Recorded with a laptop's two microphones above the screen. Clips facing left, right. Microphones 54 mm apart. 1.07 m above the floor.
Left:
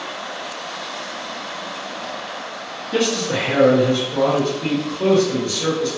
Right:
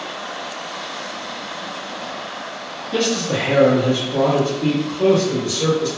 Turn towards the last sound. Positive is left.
turn(degrees=-25)  # may be behind; listen again after turning